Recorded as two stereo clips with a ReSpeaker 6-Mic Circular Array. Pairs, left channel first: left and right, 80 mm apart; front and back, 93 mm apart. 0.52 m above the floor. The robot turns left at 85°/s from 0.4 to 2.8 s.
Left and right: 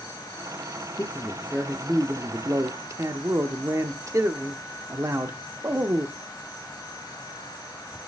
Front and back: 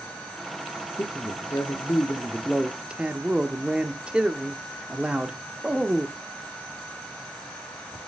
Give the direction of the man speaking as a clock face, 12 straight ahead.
10 o'clock.